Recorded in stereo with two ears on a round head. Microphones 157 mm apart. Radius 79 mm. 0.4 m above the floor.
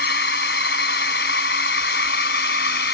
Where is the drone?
65° left (ahead or behind).